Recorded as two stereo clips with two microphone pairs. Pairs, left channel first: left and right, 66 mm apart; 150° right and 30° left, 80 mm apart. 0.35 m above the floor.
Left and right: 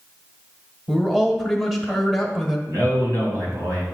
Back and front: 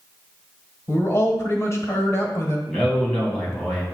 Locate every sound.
0.9 s a man speaking: 175° right, 1.3 m
2.7 s a man speaking: 70° right, 2.5 m